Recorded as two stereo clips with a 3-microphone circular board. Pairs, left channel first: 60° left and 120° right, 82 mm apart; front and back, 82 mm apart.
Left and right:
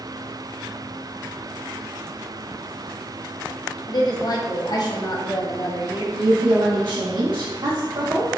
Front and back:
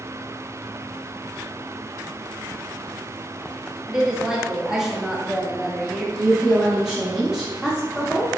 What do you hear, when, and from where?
3.9 s a woman speaking: 95° left, 0.7 m
6.2 s a woman speaking: 95° right, 0.8 m